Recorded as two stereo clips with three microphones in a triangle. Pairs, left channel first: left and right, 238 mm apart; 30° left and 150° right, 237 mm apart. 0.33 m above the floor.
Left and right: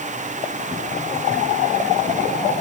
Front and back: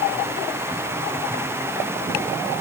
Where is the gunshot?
I don't hear a gunshot.